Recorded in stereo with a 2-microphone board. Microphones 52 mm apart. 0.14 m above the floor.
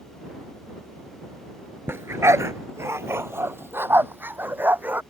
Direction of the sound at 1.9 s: 45° right (ahead or behind).